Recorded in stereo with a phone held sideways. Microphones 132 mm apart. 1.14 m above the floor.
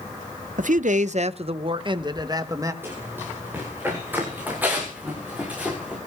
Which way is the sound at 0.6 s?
70° right (ahead or behind).